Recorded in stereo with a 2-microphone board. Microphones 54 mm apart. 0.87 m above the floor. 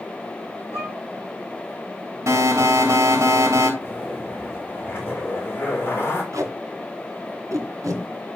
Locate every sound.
0.7 s a violin: 45° left (ahead or behind), 6.5 m
2.3 s an alarm: 65° right (ahead or behind), 3 m
3.8 s a zipper: 40° left (ahead or behind), 3.5 m
6.3 s tape being pulled: 75° right (ahead or behind), 3 m